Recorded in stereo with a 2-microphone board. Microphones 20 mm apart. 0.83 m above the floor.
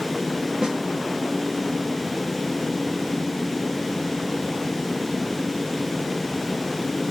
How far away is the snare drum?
About 1.6 m.